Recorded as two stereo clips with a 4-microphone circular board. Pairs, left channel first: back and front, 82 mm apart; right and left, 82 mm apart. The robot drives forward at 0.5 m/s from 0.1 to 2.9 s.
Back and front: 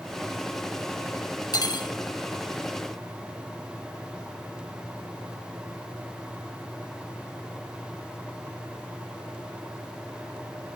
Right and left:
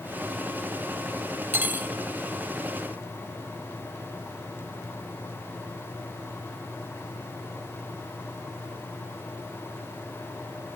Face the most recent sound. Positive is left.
turn(degrees=165)